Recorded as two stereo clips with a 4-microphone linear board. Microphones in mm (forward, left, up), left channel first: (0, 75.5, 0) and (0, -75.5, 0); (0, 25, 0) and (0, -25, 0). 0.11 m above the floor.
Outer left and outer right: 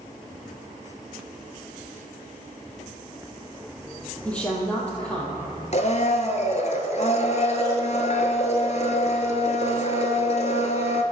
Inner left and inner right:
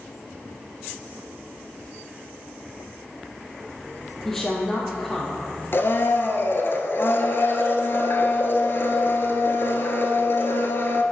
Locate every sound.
4.2 s a woman speaking: 10° left (ahead or behind), 3 m
5.7 s a blender: 50° left (ahead or behind), 1.0 m